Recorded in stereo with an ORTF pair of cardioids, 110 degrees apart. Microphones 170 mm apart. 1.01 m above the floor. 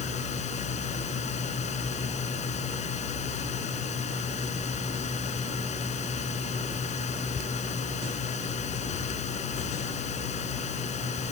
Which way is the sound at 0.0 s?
45° left.